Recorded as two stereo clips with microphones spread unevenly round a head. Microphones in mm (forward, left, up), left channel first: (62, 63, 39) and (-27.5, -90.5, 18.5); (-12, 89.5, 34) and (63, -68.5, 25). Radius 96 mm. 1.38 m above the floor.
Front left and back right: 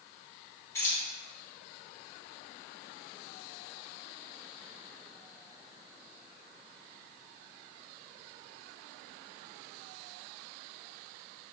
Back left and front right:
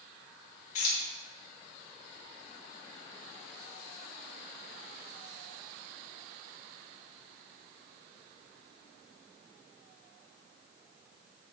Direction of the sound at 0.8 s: 135° left.